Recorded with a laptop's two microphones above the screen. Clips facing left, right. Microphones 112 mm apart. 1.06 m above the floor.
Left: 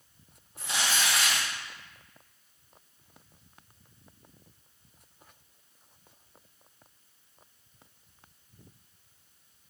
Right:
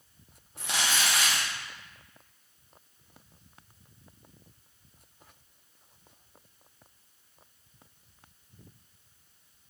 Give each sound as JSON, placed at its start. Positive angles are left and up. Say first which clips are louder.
{"t": 0.6, "sound": "crumpling", "louder": "even", "side_deg": -70, "distance_m": 1.1}